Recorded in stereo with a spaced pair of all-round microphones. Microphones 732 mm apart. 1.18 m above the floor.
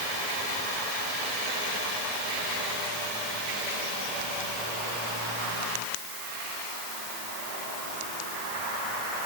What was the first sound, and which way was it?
Only background noise.